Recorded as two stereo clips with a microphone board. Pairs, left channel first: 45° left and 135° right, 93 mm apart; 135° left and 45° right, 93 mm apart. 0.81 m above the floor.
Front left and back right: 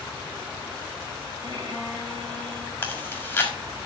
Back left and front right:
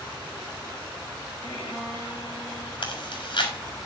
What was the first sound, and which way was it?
A violin, 175° left.